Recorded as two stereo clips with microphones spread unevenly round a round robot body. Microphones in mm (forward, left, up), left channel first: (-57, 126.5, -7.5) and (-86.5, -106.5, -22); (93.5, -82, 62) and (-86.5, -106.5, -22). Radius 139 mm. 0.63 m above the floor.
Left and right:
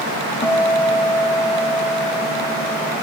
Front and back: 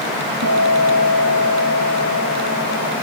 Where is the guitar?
160° left, 1.1 m.